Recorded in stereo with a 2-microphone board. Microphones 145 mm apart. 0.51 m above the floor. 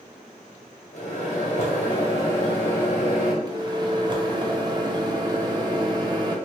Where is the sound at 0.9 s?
55° left (ahead or behind), 2.0 m.